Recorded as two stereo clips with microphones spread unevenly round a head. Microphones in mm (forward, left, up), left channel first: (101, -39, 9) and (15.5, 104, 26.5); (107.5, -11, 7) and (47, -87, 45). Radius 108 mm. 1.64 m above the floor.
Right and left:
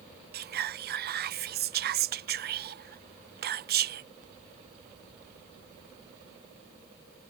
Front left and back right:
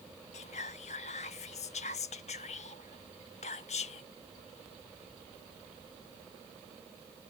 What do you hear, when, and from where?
0.3 s whispering: 95° left